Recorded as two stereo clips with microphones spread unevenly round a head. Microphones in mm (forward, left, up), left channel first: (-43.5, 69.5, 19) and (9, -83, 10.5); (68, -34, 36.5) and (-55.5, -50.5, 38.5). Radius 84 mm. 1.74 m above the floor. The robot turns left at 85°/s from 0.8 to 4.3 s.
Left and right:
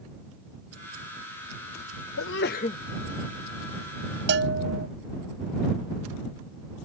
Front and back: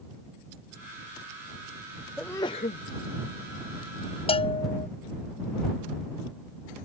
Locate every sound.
2.2 s a sneeze: 95° left; by 2.8 s 45° left
4.3 s a bell: 40° right